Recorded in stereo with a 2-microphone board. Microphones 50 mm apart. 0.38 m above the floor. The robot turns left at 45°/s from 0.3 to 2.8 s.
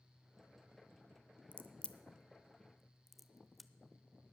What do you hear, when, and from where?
1.5 s a crack: 30° left (ahead or behind), 0.6 m; by 3.7 s centre (ahead or behind), 0.6 m